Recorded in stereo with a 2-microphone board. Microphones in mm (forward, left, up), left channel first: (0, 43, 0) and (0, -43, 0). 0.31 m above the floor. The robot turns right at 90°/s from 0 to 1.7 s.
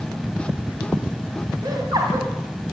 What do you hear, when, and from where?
1.6 s laughter: 55° right (ahead or behind), 2 m; by 2.3 s 50° right (ahead or behind), 2 m